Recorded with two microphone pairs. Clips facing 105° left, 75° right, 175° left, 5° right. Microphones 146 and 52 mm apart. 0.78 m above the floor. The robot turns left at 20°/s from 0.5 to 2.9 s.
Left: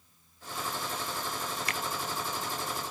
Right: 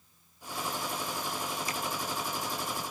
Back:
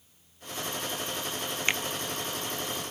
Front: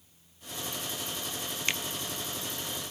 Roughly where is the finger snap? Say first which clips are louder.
Even, back 4 dB; left.